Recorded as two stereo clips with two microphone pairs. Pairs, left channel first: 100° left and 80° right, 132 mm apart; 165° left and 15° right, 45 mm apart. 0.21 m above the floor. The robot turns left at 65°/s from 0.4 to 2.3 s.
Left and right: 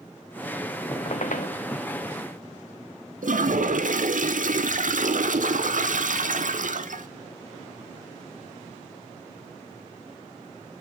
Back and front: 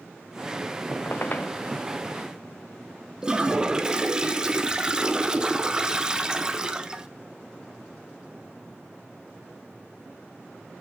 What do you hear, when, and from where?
0.9 s a squeak: 145° left, 0.8 m; by 1.5 s 105° left, 0.8 m
3.2 s a toilet flushing: 90° right, 0.6 m